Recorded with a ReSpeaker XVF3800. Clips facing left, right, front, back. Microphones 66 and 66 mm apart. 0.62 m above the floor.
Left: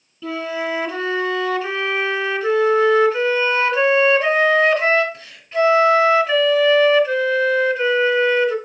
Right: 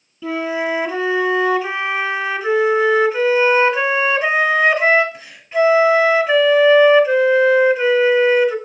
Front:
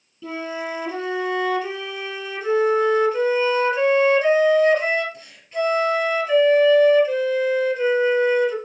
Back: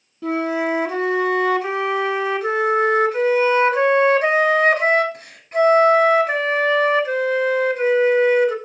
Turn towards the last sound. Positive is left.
turn(degrees=-165)